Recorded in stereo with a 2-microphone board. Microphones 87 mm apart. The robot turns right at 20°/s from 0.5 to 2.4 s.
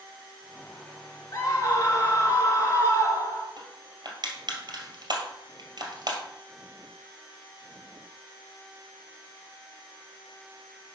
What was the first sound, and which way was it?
A scream, 35° left (ahead or behind).